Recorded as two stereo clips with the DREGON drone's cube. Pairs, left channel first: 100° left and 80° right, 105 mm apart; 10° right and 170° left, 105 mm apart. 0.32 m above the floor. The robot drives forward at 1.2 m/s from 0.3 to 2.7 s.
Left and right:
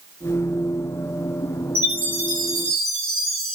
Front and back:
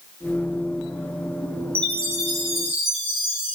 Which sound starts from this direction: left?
A chime, at 1.8 s.